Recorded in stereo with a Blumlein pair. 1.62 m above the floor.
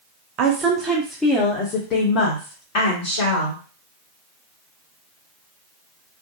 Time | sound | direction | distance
0.4 | a woman speaking | 35° right | 0.6 m